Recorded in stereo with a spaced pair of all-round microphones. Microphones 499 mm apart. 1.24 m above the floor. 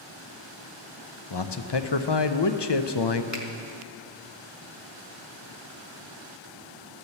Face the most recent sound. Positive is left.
turn(degrees=35)  # may be behind; listen again after turning